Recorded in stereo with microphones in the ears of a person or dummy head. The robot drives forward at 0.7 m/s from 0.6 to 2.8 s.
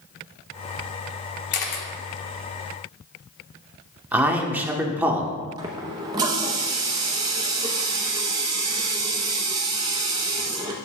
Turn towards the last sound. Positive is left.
turn(degrees=-20)  # may be behind; listen again after turning